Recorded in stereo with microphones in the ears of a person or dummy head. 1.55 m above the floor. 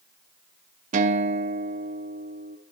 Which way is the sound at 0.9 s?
40° right (ahead or behind).